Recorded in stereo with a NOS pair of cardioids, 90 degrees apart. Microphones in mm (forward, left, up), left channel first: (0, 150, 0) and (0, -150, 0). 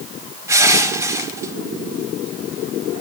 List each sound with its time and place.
0.5 s crushing: 10° right, 4.5 m